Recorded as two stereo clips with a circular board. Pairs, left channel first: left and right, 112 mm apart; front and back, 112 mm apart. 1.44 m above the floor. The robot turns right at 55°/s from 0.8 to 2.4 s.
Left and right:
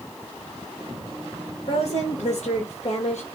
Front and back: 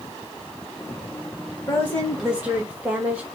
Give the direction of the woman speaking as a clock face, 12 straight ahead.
10 o'clock.